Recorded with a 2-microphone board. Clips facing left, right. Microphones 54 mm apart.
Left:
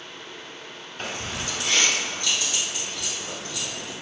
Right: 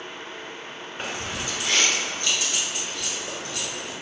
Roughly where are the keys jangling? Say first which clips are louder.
Even; right.